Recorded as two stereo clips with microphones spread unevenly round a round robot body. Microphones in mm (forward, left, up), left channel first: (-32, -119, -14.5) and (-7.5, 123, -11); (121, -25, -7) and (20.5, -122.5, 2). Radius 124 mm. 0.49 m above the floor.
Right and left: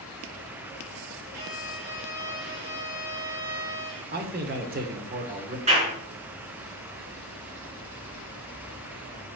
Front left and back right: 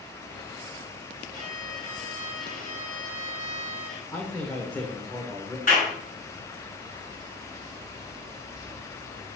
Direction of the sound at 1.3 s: 35° left.